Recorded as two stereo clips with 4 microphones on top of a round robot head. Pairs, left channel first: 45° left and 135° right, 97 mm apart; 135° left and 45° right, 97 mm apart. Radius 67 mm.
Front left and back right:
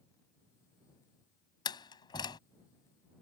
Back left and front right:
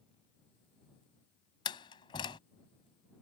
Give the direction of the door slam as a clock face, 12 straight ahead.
9 o'clock.